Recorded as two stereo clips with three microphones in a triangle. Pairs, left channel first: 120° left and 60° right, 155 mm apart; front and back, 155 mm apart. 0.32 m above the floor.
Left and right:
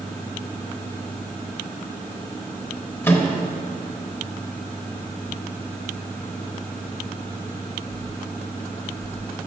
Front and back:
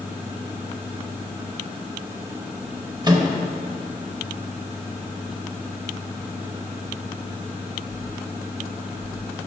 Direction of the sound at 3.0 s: Straight behind.